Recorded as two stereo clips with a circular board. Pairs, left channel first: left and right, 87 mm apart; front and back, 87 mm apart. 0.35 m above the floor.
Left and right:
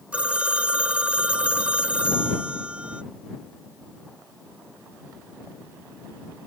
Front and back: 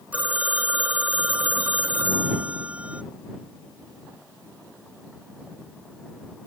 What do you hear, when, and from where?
0.1 s a phone ringing: 140° right